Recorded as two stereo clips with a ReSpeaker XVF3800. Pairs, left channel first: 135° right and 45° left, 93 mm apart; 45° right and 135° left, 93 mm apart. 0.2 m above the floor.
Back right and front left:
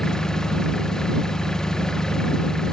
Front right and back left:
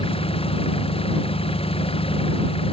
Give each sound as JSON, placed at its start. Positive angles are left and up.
{"t": 0.0, "sound": "an engine running", "azimuth_deg": -50}